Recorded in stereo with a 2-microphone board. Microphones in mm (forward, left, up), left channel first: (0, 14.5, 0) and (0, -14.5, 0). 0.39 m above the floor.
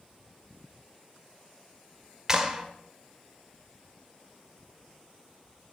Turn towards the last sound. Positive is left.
turn(degrees=-20)  # may be behind; listen again after turning